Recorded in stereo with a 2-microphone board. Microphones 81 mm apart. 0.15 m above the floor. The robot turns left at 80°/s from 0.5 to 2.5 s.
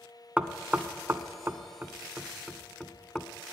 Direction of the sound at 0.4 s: 15° right (ahead or behind).